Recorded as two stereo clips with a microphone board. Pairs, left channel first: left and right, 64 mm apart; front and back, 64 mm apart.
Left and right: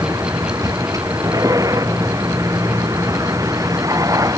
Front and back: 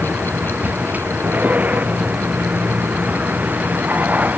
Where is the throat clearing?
No throat clearing in this recording.